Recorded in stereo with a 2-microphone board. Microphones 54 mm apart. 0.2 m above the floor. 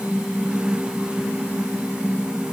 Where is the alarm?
I don't hear an alarm.